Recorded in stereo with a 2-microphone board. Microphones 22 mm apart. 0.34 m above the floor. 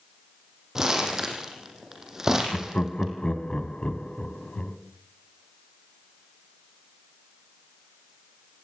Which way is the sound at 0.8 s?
25° right (ahead or behind).